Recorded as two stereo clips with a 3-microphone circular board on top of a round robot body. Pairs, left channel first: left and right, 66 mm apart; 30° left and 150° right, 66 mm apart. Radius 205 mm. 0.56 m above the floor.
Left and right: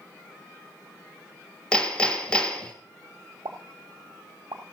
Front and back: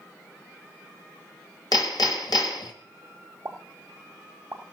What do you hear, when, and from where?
1.7 s hammering: 15° left, 1.9 m
3.5 s a pop: 100° right, 0.5 m